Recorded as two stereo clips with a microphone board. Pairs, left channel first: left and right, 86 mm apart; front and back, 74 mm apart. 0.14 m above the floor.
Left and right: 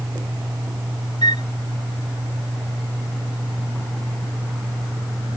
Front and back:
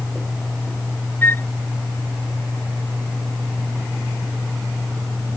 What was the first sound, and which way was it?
A flute, 60° left.